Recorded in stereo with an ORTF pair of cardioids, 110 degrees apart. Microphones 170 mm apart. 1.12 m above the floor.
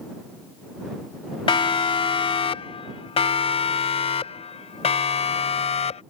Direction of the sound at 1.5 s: 30° left.